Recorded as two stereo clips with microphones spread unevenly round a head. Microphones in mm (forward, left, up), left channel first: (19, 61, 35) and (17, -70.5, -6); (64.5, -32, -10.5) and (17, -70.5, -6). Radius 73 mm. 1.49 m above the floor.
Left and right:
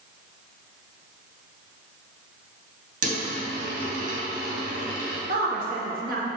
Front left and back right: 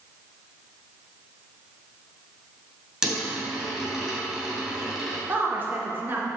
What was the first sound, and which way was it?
A dropped coin, 65° right.